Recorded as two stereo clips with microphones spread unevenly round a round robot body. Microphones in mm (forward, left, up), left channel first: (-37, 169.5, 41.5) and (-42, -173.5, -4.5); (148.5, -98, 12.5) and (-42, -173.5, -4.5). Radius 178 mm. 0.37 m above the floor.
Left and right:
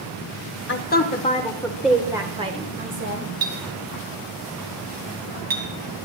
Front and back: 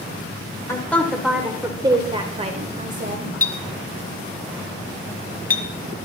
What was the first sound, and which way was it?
A woman speaking, 90° left.